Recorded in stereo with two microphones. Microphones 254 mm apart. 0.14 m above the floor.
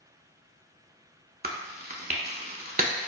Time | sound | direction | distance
1.4 | chewing | 40° right (ahead or behind) | 0.6 m